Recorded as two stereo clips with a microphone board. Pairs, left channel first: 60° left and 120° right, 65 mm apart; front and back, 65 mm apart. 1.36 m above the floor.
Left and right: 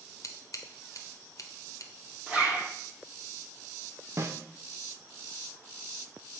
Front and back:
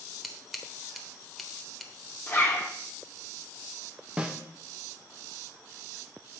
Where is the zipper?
55° right, 2 m.